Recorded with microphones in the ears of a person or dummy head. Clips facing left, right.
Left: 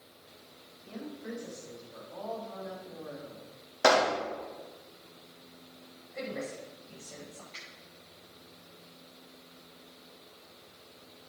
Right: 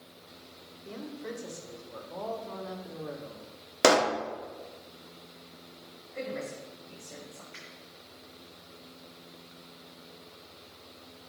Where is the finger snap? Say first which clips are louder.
Right 3 dB; 25° right (ahead or behind), 5.5 m.